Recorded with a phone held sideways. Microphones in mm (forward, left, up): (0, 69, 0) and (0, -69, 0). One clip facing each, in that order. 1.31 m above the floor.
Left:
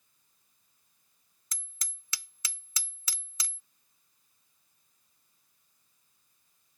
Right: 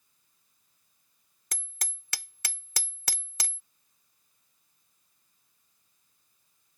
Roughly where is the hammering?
Right.